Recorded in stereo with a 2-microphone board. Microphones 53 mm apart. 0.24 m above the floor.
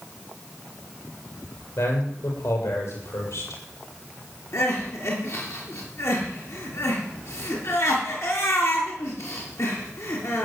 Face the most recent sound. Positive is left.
turn(degrees=65)  # may be behind; listen again after turning